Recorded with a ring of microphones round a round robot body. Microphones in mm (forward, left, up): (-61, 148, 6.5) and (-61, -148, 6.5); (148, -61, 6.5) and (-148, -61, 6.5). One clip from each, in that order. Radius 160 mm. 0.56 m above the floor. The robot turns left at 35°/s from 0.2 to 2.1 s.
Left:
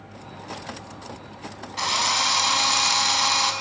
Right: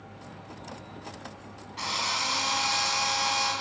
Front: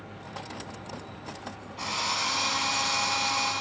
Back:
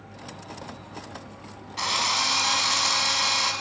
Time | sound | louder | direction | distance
1.8 | a drill | left 7 dB, back 5 dB | 140° left | 4.5 m